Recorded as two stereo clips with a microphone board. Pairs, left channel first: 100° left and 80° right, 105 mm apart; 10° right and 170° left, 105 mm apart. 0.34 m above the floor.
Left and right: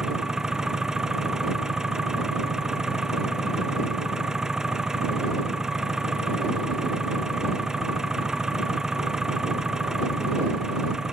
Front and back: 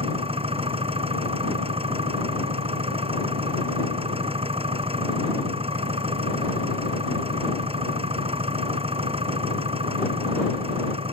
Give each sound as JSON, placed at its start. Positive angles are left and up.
{"t": 0.0, "sound": "an engine running", "azimuth_deg": -165}